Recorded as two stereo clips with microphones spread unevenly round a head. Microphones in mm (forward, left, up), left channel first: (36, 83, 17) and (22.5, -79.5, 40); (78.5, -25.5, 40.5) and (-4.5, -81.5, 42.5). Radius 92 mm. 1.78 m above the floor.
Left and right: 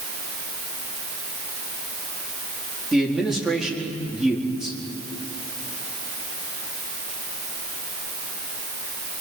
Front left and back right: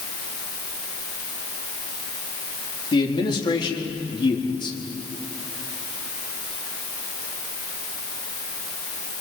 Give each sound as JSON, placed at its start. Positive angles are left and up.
{"t": 2.9, "sound": "a man speaking", "azimuth_deg": -10, "distance_m": 4.5}